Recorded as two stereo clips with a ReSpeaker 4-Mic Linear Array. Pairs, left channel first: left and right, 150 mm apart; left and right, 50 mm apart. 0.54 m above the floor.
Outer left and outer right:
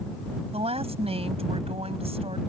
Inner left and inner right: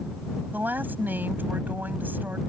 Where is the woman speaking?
45° right (ahead or behind).